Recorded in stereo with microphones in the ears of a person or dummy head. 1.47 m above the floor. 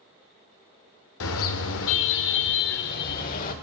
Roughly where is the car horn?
Left.